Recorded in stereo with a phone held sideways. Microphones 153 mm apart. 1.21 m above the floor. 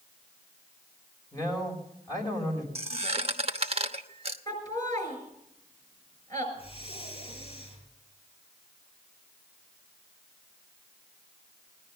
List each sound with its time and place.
1.3 s a man speaking: 25° left (ahead or behind), 4.5 m
2.8 s a squeak: 40° right (ahead or behind), 1.0 m
4.5 s laughter: 25° left (ahead or behind), 7.5 m
6.5 s breathing: 40° left (ahead or behind), 4.5 m